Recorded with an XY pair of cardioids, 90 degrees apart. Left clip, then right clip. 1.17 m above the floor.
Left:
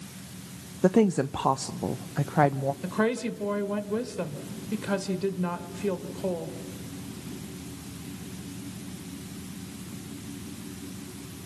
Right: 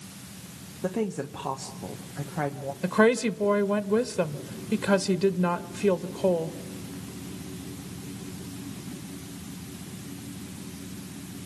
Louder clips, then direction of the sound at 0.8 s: Left 7 dB; 60° left.